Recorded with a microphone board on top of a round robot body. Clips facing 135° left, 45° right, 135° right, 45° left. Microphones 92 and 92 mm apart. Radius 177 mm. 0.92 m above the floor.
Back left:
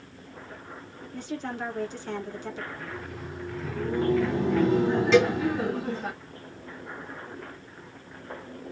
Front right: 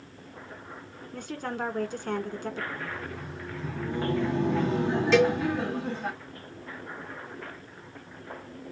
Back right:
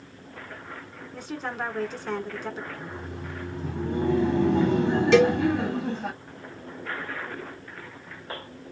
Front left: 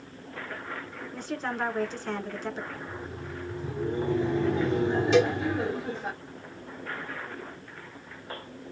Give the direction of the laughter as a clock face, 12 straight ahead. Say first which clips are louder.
Front right 1 dB, back right 1 dB; 4 o'clock.